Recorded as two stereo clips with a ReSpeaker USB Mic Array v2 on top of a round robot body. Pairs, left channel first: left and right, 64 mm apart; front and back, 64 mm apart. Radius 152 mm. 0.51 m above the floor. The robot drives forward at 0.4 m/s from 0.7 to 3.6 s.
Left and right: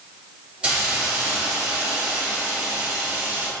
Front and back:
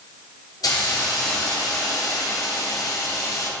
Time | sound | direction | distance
0.6 | a hiss | 15° right | 2.5 m